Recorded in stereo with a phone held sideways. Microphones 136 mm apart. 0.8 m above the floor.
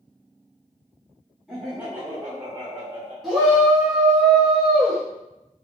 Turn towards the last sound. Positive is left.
turn(degrees=0)  # may be behind; listen again after turning